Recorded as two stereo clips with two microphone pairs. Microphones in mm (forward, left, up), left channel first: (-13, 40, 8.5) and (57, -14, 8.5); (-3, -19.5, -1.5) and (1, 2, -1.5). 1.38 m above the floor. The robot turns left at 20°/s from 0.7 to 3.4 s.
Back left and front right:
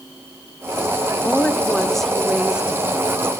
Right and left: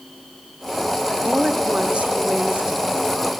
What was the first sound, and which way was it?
A woman speaking, 70° left.